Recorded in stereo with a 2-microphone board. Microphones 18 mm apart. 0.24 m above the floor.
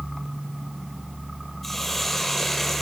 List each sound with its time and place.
1.6 s a hiss: 15° left (ahead or behind), 5.5 m